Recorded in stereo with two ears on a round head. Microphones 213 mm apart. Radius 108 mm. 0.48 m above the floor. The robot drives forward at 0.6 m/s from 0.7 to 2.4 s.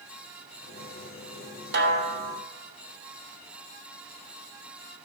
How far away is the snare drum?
About 1.5 m.